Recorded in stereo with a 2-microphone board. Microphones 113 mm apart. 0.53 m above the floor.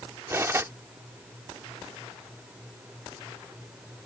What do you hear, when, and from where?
0.3 s cutlery clinking: 20° right (ahead or behind)